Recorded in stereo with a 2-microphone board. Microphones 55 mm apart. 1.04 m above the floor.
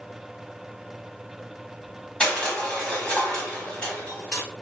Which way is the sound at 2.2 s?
15° left (ahead or behind).